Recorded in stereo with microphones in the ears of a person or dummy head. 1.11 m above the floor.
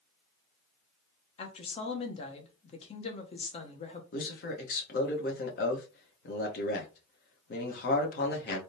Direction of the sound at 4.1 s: 45° left (ahead or behind).